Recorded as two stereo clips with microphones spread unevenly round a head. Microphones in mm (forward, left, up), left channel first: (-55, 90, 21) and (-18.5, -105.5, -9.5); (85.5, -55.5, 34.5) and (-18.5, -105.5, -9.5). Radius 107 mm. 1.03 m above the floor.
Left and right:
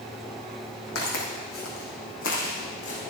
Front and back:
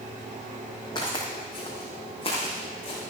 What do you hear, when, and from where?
0.9 s footsteps: 85° left, 3.5 m; by 3.0 s 65° left, 3.5 m